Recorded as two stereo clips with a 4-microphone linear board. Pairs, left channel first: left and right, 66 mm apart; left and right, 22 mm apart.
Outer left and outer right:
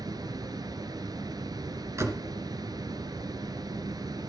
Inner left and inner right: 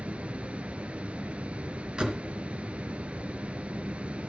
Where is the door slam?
45° right (ahead or behind), 2.5 m.